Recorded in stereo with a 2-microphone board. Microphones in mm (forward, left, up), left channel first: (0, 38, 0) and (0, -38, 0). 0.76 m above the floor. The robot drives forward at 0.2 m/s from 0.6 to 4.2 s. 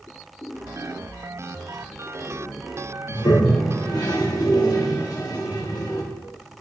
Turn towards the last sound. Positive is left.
turn(degrees=55)  # may be behind; listen again after turning